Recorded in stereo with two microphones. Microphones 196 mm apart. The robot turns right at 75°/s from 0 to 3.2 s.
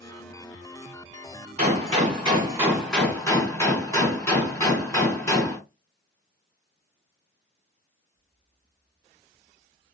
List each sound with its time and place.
1.6 s a gunshot: 95° right, 1.9 m; by 5.6 s 25° left, 1.9 m